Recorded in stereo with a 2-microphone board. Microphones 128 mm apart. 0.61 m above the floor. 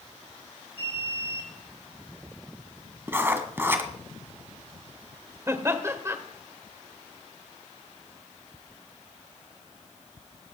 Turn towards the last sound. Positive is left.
turn(degrees=-20)  # may be behind; listen again after turning